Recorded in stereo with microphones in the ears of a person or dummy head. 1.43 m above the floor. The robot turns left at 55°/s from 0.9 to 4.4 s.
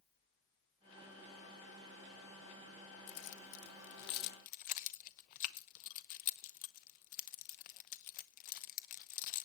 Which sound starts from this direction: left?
Keys jangling, at 3.1 s.